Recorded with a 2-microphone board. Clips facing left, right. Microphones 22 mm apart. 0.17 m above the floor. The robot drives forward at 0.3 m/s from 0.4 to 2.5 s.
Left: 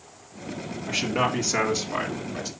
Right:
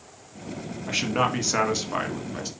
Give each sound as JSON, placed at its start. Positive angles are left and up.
{"t": 0.9, "sound": "a man speaking", "side_deg": -10, "distance_m": 1.6}